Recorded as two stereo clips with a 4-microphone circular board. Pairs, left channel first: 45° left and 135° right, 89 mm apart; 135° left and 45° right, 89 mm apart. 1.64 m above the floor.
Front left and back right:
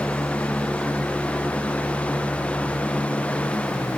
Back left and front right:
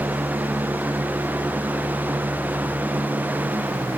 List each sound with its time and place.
Only background noise.